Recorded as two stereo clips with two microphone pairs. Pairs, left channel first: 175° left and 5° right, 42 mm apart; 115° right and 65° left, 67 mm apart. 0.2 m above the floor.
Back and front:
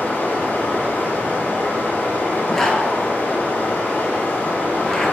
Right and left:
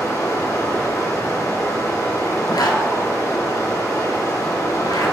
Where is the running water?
140° right, 1.7 m.